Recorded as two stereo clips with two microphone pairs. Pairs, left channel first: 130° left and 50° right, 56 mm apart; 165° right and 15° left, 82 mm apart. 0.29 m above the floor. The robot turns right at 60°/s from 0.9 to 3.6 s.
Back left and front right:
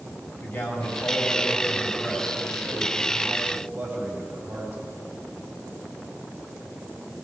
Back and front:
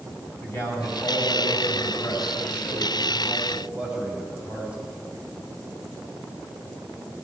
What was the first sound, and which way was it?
A man speaking, 140° left.